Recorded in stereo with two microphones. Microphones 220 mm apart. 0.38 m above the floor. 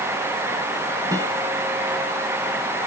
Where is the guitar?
15° right (ahead or behind), 2.5 m.